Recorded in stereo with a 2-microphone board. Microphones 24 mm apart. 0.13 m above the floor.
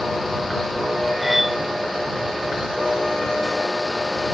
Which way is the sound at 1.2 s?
10° right (ahead or behind).